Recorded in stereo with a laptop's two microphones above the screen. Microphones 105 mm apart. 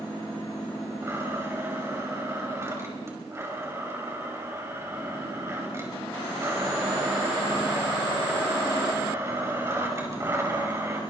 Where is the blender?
25° right (ahead or behind), 5.5 m.